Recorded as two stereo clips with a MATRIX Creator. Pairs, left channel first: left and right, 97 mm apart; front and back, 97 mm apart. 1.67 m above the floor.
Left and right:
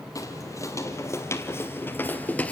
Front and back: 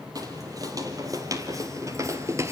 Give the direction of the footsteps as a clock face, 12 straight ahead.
7 o'clock.